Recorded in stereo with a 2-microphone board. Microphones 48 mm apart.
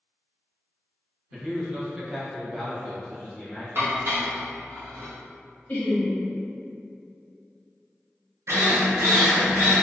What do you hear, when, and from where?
1.3 s a man speaking: 20° right (ahead or behind), 1.0 m; by 3.7 s 10° left (ahead or behind), 1.0 m
3.8 s dishes clattering: 60° right (ahead or behind), 0.7 m
5.7 s laughter: 30° left (ahead or behind), 0.7 m
8.5 s a drill: 75° right (ahead or behind), 0.8 m